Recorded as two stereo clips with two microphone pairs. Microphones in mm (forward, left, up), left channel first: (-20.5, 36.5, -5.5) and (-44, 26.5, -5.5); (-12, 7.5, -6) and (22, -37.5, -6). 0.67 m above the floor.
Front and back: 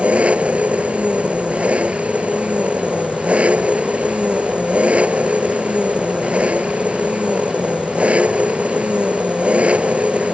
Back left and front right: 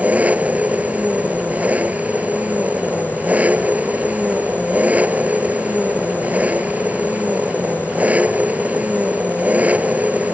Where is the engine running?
120° right.